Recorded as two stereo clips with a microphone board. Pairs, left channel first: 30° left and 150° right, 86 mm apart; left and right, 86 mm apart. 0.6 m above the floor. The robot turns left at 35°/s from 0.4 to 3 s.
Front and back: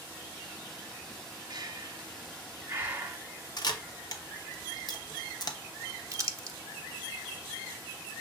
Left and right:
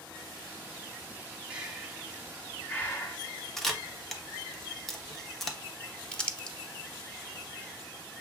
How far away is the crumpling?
About 0.6 m.